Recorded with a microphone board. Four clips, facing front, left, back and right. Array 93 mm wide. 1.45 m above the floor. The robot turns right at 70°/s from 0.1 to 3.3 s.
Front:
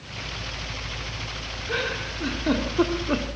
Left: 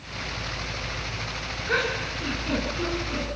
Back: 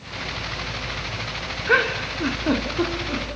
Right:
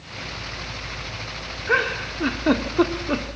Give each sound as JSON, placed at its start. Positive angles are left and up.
{"t": 1.7, "sound": "a giggle", "azimuth_deg": -155, "distance_m": 3.0}